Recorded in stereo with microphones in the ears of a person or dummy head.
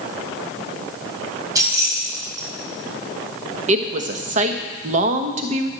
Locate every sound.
1.6 s keys jangling: 20° right (ahead or behind), 5 m
3.7 s a woman speaking: 45° right (ahead or behind), 1.0 m